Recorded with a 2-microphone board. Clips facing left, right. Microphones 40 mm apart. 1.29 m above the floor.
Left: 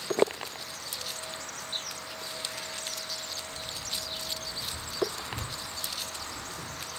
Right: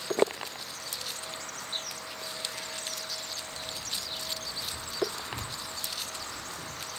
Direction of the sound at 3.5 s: 55° right (ahead or behind).